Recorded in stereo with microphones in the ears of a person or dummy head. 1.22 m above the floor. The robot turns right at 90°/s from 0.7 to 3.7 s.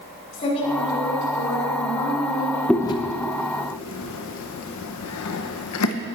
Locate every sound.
0.3 s a woman speaking: 35° left, 4.5 m; by 2.6 s 155° right, 4.5 m
2.7 s chewing: centre (ahead or behind), 0.8 m; by 5.9 s 80° left, 0.8 m